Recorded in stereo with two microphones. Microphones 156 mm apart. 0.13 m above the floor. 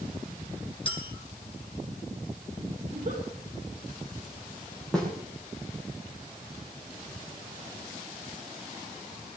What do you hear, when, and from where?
0.8 s a clink: 35° left (ahead or behind), 3 m
2.9 s a giggle: 55° right (ahead or behind), 7 m
4.9 s a snare drum: 5° left (ahead or behind), 5.5 m